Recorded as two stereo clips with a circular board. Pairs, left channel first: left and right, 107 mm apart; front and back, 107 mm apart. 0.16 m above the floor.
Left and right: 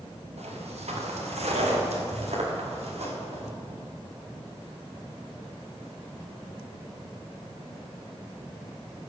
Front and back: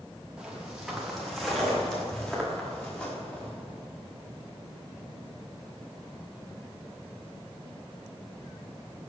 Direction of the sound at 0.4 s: 95° right.